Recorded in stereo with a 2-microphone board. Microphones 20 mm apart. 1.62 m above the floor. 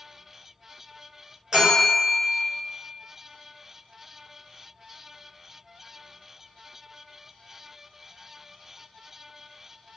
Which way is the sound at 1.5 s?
45° right (ahead or behind).